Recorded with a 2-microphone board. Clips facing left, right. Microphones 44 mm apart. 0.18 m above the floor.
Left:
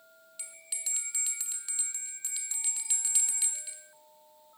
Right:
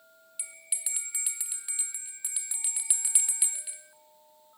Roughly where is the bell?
Centre.